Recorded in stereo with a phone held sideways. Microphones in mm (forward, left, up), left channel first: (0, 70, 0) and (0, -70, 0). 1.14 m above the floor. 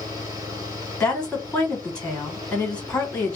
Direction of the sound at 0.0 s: 25° right (ahead or behind).